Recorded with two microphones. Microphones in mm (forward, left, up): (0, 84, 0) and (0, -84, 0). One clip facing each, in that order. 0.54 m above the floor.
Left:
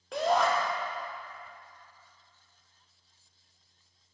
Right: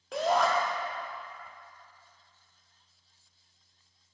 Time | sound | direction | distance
0.1 | a shout | centre (ahead or behind) | 0.7 m